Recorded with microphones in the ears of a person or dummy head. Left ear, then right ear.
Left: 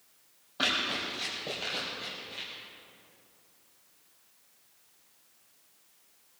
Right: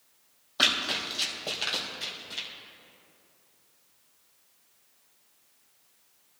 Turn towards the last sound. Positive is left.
turn(degrees=-45)  # may be behind; listen again after turning